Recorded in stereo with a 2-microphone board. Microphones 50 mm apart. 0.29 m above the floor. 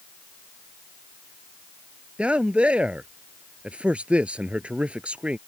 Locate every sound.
2.2 s a man speaking: 25° right (ahead or behind)